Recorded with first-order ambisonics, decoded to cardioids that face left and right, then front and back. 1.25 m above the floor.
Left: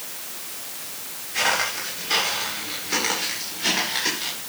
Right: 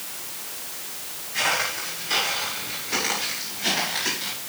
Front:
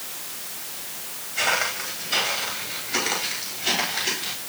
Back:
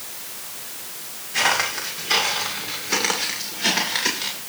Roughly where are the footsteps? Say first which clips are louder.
Left 1 dB, back 3 dB; behind.